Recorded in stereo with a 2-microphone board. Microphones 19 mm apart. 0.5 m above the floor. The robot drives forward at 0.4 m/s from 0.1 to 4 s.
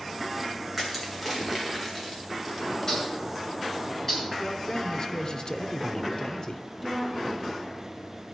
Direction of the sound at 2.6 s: 25° left (ahead or behind).